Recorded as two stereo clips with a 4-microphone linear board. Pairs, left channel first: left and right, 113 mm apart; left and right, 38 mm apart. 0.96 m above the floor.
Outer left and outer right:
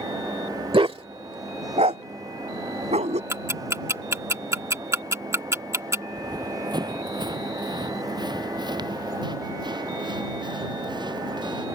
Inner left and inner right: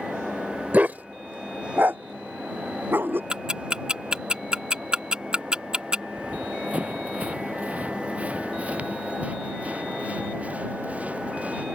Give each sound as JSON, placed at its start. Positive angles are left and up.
{"t": 0.7, "sound": "a dog barking", "side_deg": -50}
{"t": 3.3, "sound": "ticking", "side_deg": -25}
{"t": 6.2, "sound": "running footsteps", "side_deg": -35}